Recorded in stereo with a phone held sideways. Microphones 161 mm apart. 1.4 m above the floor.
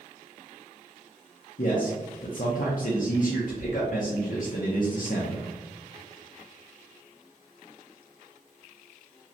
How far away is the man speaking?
About 0.7 m.